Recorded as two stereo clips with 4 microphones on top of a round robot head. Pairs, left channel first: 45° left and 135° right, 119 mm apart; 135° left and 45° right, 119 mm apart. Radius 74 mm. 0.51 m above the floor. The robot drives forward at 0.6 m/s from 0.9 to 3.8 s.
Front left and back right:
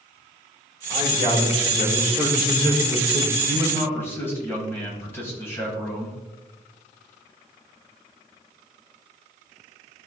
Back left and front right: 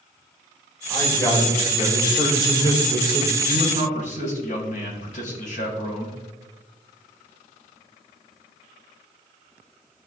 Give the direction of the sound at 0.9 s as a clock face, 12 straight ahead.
10 o'clock.